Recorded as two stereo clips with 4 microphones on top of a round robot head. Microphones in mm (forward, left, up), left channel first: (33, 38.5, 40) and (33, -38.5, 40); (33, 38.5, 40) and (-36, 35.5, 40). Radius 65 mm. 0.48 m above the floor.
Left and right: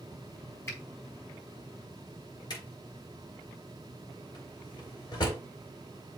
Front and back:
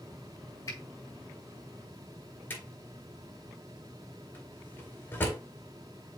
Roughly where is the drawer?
Ahead left.